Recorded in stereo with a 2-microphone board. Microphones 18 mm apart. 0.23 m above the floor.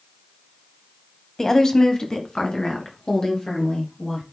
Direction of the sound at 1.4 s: 25° left (ahead or behind).